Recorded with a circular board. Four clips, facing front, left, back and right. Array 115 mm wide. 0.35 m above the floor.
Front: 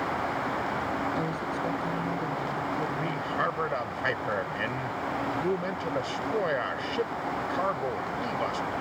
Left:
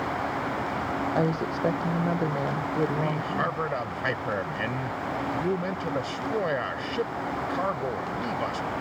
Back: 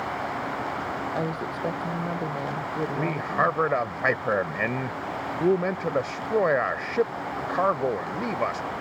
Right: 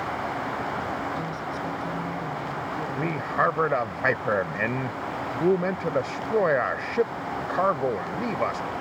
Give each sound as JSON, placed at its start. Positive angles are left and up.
{"t": 1.1, "sound": "a woman speaking", "azimuth_deg": 105}
{"t": 3.0, "sound": "a man speaking", "azimuth_deg": -140}